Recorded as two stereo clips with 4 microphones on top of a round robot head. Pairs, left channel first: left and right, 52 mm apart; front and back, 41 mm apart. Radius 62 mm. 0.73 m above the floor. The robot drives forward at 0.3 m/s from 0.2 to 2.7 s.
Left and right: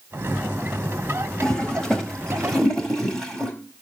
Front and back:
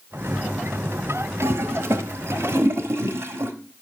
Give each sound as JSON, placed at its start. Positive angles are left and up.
{"t": 1.4, "sound": "a toilet flushing", "azimuth_deg": 170, "distance_m": 1.2}